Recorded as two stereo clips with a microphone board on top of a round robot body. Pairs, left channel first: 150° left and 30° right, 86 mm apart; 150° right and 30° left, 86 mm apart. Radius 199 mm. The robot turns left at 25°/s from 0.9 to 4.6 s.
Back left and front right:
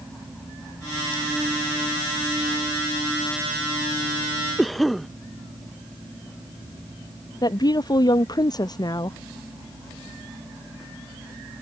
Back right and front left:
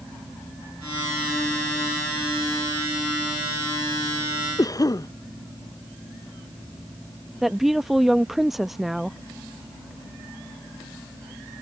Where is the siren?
No siren in this recording.